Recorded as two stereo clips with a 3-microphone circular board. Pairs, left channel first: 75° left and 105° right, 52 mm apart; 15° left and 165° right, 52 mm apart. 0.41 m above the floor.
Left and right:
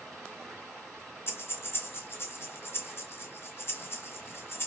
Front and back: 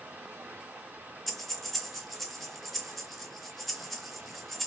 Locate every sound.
0.0 s running water: 150° left, 1.7 m
1.3 s breathing: 100° left, 0.5 m